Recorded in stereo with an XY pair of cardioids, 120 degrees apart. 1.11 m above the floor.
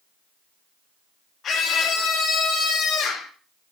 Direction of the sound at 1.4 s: 45° left.